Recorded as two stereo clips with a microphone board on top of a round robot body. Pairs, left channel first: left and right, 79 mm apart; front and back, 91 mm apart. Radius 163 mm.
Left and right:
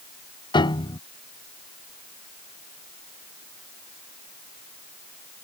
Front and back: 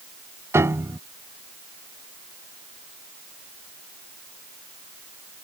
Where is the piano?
115° left.